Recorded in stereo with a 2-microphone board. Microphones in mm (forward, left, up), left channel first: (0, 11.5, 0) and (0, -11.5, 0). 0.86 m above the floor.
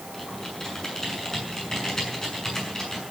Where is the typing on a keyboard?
25° left (ahead or behind), 7 m.